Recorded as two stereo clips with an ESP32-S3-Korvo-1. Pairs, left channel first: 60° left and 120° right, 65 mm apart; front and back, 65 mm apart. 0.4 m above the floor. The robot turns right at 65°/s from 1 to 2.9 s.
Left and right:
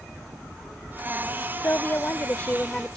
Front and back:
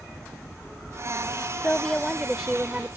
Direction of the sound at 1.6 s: 55° left.